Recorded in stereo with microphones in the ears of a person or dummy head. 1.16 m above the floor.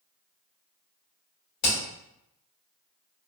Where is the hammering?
55° left (ahead or behind), 1.9 m.